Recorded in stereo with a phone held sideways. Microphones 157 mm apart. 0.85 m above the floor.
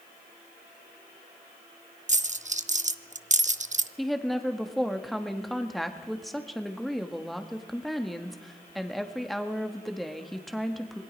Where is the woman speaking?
Centre (ahead or behind), 1.7 m.